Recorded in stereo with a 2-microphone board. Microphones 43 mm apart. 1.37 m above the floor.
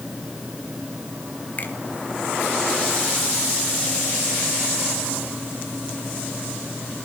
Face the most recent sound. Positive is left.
turn(degrees=40)  # may be behind; listen again after turning